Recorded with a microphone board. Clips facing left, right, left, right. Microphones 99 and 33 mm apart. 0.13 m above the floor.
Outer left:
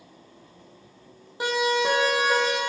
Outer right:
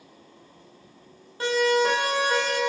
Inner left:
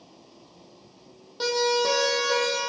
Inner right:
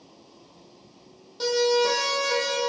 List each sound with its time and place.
1.4 s a siren: 15° left (ahead or behind), 4 m; by 2.6 s 5° left (ahead or behind), 3.5 m